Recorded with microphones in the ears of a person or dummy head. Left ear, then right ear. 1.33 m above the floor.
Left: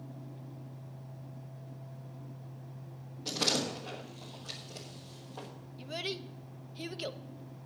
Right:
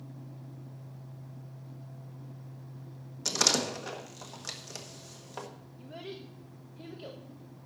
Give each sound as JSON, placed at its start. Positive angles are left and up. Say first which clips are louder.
{"t": 3.2, "sound": "a door slam", "louder": "right 4 dB", "side_deg": -60, "distance_m": 1.6}
{"t": 5.8, "sound": "a child speaking", "louder": "left 6 dB", "side_deg": 75, "distance_m": 0.9}